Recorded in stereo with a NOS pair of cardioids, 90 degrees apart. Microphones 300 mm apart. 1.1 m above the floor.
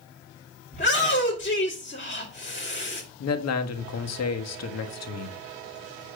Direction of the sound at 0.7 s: 25° left.